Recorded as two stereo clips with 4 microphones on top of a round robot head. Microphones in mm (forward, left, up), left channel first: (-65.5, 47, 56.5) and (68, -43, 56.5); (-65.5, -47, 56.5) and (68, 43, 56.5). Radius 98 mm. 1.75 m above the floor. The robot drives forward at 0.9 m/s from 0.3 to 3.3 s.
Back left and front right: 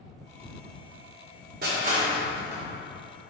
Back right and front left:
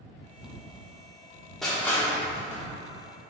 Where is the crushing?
60° right, 1.3 m; by 2.6 s 110° right, 1.3 m.